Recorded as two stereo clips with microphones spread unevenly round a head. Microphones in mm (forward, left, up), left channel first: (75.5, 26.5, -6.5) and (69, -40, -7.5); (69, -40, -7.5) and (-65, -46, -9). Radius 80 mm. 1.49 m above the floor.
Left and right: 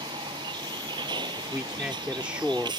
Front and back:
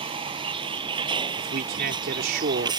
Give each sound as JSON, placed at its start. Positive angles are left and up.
{"t": 0.0, "sound": "a vehicle", "azimuth_deg": -130}
{"t": 1.4, "sound": "a man speaking", "azimuth_deg": -175}